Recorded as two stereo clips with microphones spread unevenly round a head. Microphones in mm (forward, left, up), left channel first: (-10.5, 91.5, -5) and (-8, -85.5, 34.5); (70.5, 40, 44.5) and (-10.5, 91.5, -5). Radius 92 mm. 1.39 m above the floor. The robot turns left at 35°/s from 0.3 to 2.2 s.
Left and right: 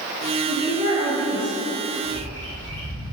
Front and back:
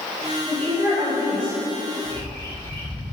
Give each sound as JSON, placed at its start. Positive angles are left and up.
{"t": 0.5, "sound": "a woman speaking", "azimuth_deg": 95, "distance_m": 1.6}
{"t": 2.0, "sound": "a bird", "azimuth_deg": 5, "distance_m": 0.8}